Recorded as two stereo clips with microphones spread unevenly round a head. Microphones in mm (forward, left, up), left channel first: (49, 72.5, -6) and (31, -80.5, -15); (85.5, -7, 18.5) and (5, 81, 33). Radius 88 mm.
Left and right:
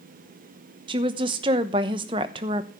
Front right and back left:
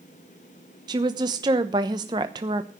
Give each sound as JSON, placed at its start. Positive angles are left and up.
{"t": 0.9, "sound": "a woman speaking", "azimuth_deg": -160, "distance_m": 0.9}